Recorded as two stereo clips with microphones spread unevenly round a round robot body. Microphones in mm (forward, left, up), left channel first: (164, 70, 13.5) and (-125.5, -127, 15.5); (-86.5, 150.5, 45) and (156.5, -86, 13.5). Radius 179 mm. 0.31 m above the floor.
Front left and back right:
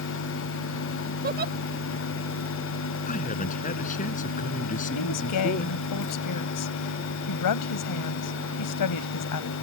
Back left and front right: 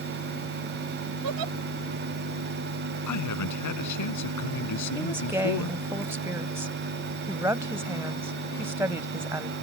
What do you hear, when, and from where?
1.2 s a giggle: 80° right
3.1 s a man speaking: 105° left
5.0 s a woman speaking: 35° left